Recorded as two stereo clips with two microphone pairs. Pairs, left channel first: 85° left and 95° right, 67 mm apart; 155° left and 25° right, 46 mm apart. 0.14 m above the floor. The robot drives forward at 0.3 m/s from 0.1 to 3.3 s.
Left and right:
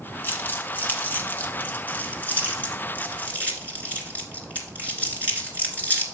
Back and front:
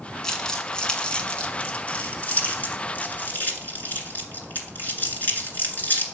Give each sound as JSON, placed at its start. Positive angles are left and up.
{"t": 0.2, "sound": "crumpling", "azimuth_deg": 90, "distance_m": 1.3}